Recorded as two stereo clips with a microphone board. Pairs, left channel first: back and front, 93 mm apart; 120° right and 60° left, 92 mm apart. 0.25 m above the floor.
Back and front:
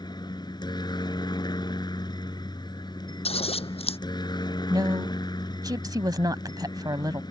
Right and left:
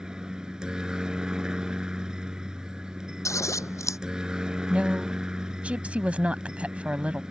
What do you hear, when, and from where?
0.0 s a helicopter: 140° left
3.2 s scissors: straight behind
4.7 s a woman speaking: 10° right